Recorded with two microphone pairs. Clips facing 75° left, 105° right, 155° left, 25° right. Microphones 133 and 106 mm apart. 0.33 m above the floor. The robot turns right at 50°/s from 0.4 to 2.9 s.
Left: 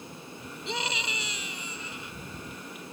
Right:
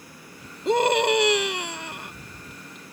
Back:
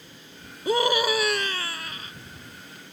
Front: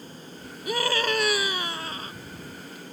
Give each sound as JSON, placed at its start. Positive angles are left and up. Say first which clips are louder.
{"t": 0.7, "sound": "a scream", "louder": "right 16 dB, back 4 dB", "azimuth_deg": -145}